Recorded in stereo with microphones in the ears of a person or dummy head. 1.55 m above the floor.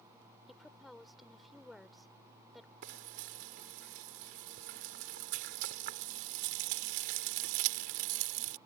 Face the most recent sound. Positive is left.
turn(degrees=-45)  # may be behind; listen again after turning